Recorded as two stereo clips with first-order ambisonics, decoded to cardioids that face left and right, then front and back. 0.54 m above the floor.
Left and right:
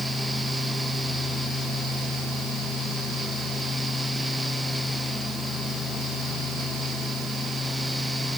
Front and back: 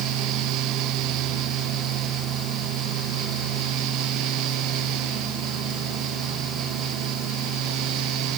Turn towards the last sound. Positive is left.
No sound to turn to.